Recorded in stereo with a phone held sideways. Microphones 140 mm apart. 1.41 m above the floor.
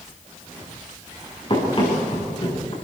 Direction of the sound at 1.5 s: 40° left (ahead or behind).